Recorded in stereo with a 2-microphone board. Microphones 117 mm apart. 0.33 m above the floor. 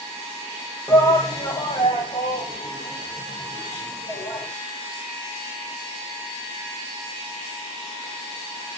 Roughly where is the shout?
Left.